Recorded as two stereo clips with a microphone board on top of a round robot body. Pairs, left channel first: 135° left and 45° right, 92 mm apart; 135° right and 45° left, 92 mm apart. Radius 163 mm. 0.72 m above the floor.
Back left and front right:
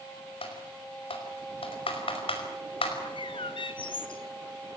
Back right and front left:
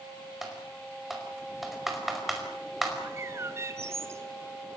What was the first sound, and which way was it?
Typing on a keyboard, 135° left.